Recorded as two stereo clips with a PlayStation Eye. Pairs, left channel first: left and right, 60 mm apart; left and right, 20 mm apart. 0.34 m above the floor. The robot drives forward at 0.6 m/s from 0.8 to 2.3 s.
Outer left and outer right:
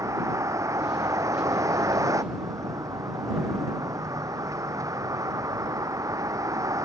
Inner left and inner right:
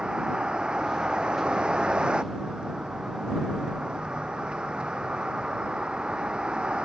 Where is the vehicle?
60° right (ahead or behind); by 6.8 s 65° right (ahead or behind).